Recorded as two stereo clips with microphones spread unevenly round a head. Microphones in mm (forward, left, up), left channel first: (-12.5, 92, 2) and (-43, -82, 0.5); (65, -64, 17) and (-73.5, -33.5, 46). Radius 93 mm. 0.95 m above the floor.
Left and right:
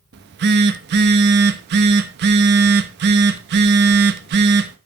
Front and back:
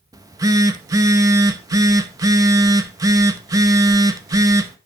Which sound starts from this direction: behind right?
A phone buzzing, at 0.1 s.